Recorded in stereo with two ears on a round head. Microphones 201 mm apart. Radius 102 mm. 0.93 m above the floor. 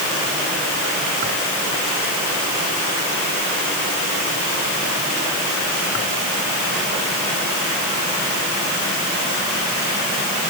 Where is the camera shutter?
I don't hear a camera shutter.